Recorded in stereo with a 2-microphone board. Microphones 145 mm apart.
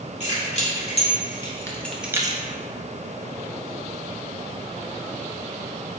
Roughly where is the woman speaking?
I don't hear a woman speaking.